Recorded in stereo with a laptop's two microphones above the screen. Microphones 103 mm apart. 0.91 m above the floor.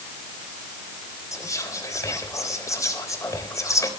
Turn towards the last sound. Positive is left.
turn(degrees=30)  # may be behind; listen again after turning